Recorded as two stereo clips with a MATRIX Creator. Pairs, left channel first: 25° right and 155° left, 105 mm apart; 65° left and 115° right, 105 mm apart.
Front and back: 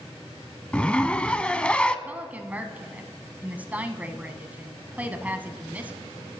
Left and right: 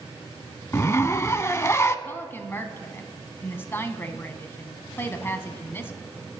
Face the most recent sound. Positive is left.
turn(degrees=100)